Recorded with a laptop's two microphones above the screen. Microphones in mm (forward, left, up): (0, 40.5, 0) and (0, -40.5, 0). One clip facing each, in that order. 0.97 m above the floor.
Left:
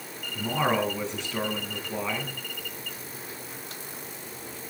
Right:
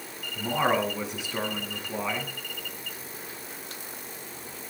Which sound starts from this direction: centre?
A man speaking, at 0.3 s.